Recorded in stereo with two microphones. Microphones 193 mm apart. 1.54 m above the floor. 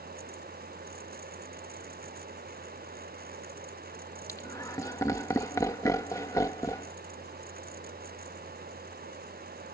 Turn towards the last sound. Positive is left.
turn(degrees=15)  # may be behind; listen again after turning